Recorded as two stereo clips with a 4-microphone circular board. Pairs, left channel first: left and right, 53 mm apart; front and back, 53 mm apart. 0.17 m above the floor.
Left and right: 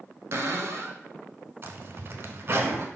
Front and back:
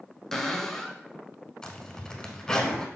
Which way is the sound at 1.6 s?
70° right.